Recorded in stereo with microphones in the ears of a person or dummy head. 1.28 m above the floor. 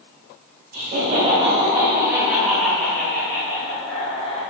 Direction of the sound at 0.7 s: 50° right (ahead or behind).